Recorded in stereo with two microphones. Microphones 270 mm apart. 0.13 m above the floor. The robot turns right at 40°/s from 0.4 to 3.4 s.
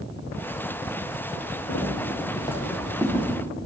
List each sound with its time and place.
1.7 s footsteps: 50° left (ahead or behind), 8.5 m; by 3.2 s 20° right (ahead or behind), 7 m